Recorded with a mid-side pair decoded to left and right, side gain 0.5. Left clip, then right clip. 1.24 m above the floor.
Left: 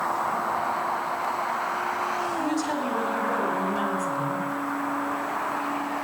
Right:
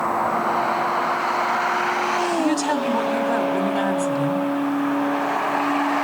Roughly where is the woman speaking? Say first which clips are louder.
Right 6 dB; ahead right.